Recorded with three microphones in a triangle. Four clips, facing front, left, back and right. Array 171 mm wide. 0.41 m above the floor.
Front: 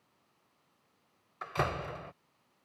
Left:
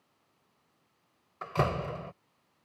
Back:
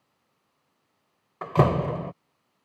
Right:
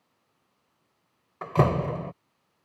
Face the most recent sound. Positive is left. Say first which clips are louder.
# right 7 dB, back 12 dB
turn(degrees=-155)